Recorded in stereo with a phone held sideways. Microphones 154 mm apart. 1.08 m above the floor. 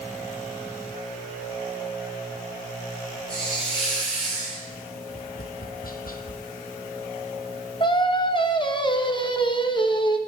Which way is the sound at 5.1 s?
70° left (ahead or behind).